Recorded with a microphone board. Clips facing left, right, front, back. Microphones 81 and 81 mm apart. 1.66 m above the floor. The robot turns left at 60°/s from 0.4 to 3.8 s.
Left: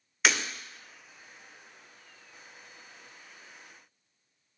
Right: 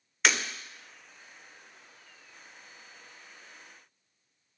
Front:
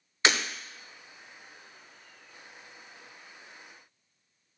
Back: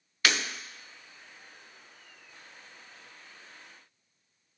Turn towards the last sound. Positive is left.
turn(degrees=165)